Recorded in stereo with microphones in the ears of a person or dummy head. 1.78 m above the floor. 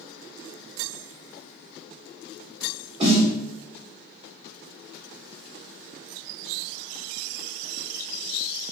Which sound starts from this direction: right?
A snare drum, at 3.0 s.